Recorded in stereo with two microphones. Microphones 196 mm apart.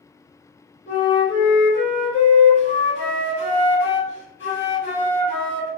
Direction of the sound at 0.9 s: 75° left (ahead or behind).